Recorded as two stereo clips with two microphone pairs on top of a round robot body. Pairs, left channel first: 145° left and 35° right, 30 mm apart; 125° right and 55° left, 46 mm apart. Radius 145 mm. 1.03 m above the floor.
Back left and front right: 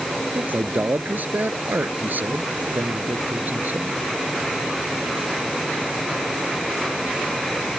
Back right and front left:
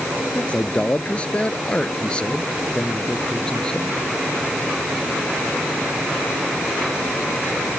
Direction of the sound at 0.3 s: 60° right.